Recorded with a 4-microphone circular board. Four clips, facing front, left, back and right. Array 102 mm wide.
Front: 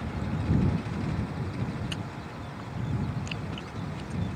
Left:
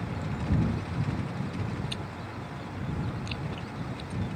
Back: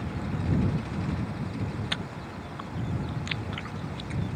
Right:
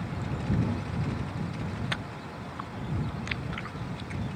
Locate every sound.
1.9 s chewing: 115° right